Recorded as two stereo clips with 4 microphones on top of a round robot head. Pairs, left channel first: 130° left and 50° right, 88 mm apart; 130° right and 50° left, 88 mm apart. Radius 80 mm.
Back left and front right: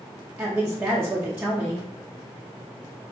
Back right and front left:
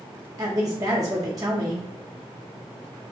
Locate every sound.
0.4 s a woman speaking: 10° left, 0.5 m